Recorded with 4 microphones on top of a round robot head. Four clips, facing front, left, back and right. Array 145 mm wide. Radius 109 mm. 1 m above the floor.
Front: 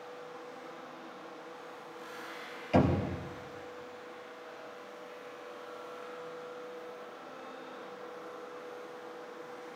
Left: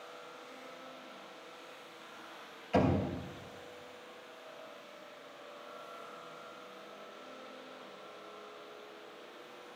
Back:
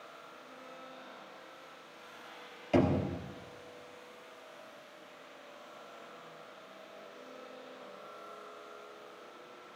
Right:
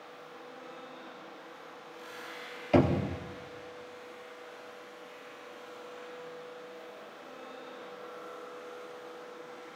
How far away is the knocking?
About 3 m.